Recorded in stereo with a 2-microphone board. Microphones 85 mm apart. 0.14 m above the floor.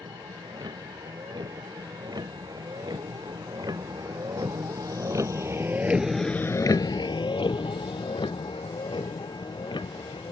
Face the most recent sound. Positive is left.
turn(degrees=70)  # may be behind; listen again after turning